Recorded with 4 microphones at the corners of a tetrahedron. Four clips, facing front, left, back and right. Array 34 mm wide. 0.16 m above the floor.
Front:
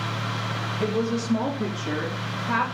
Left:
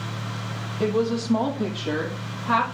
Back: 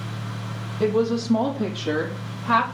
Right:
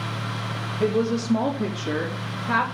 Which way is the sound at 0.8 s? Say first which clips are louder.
Even, back 5 dB; 120° left.